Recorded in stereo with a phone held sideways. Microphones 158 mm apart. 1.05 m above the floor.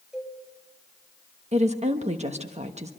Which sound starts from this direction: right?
A woman speaking, at 1.5 s.